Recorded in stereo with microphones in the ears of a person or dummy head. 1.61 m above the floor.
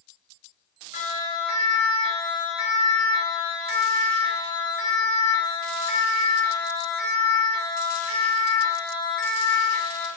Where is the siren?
45° left (ahead or behind), 9.5 m; by 10.1 s 60° left (ahead or behind), 15 m.